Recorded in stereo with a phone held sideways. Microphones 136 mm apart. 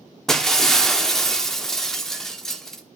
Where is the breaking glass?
5° left (ahead or behind), 1.2 m.